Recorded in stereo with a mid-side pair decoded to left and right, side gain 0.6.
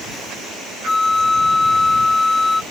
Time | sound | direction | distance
0.8 | a flute | 15° left | ?